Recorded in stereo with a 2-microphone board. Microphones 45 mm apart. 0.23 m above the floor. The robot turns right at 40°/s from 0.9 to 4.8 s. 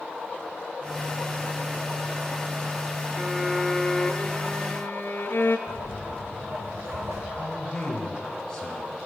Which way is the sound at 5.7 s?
75° right (ahead or behind).